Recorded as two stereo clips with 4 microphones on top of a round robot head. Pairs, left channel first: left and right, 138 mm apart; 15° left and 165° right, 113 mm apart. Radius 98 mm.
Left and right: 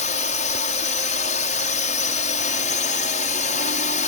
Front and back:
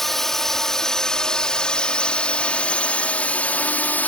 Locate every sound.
0.0 s a drone: 100° left; by 4.1 s 85° left